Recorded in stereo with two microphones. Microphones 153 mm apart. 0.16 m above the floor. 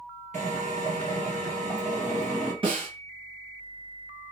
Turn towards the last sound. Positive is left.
turn(degrees=-35)  # may be behind; listen again after turning